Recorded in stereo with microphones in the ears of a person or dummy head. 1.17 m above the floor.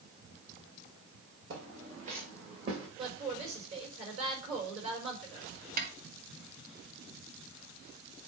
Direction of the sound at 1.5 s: 50° right (ahead or behind).